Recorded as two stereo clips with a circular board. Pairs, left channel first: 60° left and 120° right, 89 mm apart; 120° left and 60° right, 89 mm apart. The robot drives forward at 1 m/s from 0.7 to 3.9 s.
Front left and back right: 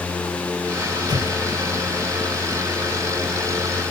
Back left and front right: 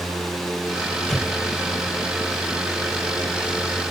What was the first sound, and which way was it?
An explosion, 160° right.